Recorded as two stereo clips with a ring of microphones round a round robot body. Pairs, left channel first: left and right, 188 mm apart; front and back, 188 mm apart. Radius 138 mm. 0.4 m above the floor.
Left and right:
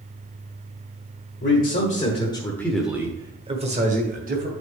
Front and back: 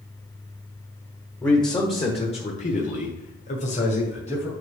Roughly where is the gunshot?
I don't hear a gunshot.